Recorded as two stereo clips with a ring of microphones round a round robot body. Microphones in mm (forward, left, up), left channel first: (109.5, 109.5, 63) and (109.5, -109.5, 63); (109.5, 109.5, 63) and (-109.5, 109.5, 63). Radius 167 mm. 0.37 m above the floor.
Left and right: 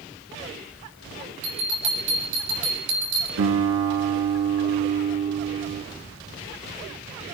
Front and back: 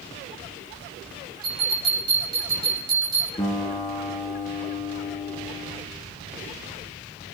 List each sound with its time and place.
1.4 s a bell: 110° right, 6 m
3.4 s a guitar: 70° right, 2 m